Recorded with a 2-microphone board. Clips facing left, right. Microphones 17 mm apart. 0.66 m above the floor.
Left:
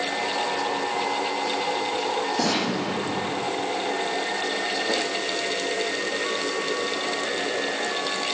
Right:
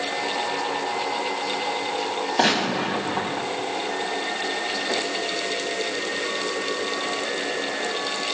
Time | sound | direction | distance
2.4 | a gunshot | 75° right (ahead or behind) | 6 m